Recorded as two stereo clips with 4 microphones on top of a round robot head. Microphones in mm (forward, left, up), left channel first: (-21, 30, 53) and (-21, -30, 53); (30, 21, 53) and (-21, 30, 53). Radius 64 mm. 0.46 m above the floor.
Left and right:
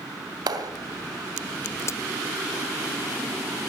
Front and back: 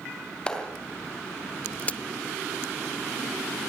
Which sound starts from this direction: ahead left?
A crack, at 1.8 s.